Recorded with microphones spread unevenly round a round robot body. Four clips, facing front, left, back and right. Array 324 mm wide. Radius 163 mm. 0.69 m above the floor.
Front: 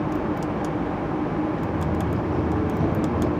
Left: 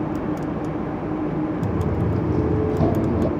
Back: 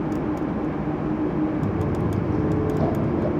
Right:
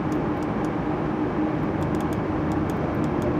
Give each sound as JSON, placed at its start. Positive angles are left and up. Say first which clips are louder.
{"t": 1.6, "sound": "footsteps", "louder": "left 1 dB, back 1 dB", "azimuth_deg": 115, "distance_m": 2.0}